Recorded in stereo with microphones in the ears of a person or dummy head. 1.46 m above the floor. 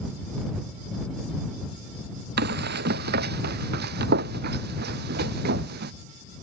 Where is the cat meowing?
No cat meowing in this recording.